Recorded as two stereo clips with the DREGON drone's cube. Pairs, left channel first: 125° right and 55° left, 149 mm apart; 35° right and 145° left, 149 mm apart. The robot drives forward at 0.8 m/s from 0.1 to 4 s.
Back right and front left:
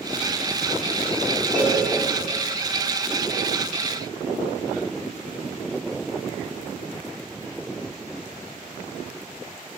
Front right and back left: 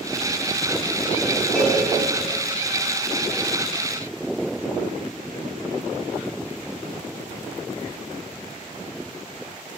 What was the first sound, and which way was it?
A cowbell, 50° left.